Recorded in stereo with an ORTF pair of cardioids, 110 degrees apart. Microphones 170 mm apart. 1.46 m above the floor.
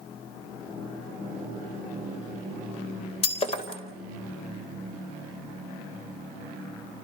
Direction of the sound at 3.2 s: 35° left.